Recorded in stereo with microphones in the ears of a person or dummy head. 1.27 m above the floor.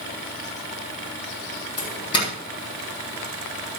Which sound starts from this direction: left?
A doorbell, at 1.8 s.